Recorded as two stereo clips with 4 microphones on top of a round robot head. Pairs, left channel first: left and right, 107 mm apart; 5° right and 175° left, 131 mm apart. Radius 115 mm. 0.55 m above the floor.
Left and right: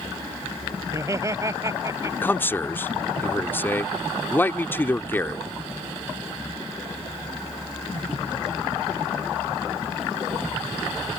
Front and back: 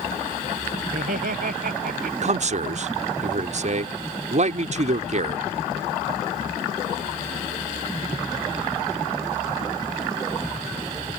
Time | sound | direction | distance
0.9 | laughter | 150° right | ?
2.2 | a man speaking | 160° left | ?